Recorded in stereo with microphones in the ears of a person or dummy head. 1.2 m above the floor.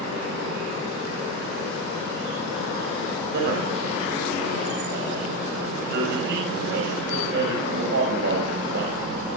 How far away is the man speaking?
About 7.5 m.